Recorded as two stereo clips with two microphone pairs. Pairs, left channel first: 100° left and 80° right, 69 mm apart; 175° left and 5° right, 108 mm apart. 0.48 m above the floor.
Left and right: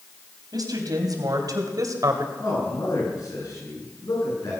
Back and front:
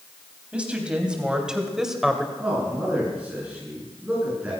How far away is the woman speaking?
About 3.5 m.